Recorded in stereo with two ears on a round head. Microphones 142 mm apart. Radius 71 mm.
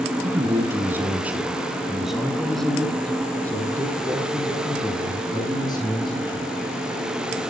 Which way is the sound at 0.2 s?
20° right (ahead or behind).